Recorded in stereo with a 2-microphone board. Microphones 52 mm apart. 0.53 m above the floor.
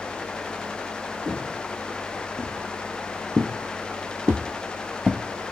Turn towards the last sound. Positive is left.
turn(degrees=-20)  # may be behind; listen again after turning